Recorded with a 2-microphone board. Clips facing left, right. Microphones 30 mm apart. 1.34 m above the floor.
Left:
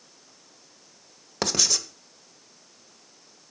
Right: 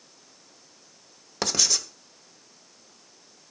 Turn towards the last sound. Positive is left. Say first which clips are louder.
# even
turn(degrees=0)  # may be behind; listen again after turning